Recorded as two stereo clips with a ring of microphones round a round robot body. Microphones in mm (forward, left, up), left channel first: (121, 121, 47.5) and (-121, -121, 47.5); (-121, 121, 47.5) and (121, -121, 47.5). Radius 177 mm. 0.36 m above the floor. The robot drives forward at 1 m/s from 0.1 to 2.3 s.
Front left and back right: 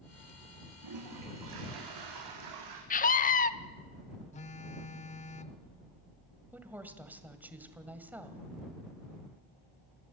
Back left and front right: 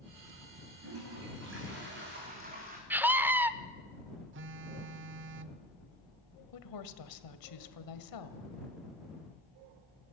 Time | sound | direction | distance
0.8 | a toilet flushing | 95° right | 5.5 m
2.9 | a scream | 30° left | 0.8 m
4.3 | a phone buzzing | 15° right | 0.6 m
6.5 | a woman speaking | 140° left | 1.8 m